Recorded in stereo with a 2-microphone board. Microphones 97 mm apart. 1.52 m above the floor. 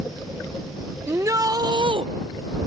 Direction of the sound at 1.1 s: 30° right (ahead or behind).